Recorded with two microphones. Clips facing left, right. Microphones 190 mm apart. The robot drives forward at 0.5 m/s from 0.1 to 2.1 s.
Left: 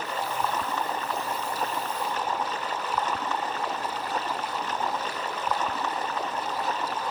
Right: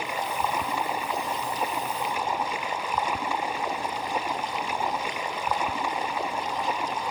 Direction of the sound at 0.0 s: 10° right (ahead or behind).